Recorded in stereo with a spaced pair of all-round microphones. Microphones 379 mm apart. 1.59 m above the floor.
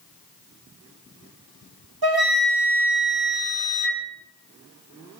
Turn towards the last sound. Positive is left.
turn(degrees=-70)  # may be behind; listen again after turning